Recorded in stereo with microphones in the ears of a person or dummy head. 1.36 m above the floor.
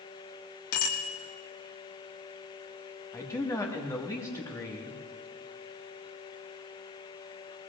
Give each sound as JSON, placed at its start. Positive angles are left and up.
{"t": 0.7, "sound": "a bicycle bell", "side_deg": 75, "distance_m": 2.0}
{"t": 3.1, "sound": "a man speaking", "side_deg": 15, "distance_m": 1.7}